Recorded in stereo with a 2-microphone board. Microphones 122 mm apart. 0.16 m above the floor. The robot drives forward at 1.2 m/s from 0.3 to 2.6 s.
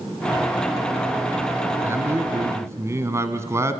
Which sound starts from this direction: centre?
A man speaking, at 1.8 s.